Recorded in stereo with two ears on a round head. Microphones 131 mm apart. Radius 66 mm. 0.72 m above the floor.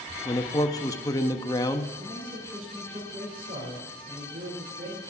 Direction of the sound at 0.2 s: 25° left (ahead or behind).